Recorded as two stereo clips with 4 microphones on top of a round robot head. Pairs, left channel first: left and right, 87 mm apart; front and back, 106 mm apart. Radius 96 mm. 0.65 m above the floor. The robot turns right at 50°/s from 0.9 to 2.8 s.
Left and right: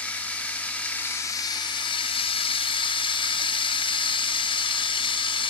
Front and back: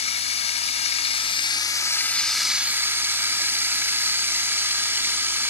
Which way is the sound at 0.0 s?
10° left.